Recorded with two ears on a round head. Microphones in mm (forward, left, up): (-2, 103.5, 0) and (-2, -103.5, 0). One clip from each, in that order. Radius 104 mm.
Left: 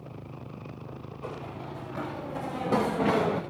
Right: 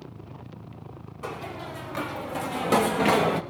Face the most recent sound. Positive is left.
turn(degrees=-75)  # may be behind; listen again after turning